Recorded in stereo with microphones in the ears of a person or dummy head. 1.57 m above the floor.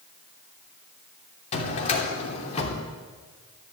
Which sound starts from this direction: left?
A drawer, at 1.5 s.